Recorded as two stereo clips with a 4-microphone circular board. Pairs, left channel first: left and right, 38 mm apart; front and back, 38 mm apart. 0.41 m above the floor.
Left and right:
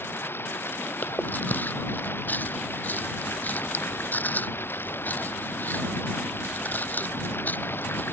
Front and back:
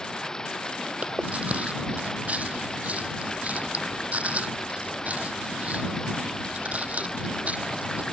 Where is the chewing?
130° left.